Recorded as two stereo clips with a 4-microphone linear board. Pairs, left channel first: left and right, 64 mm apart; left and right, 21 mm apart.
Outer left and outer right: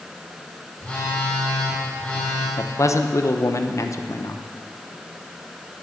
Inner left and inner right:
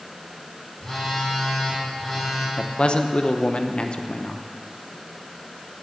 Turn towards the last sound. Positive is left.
turn(degrees=50)  # may be behind; listen again after turning